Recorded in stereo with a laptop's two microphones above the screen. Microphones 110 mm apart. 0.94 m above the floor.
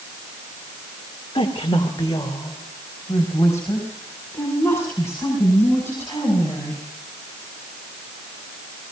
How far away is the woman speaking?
About 2 m.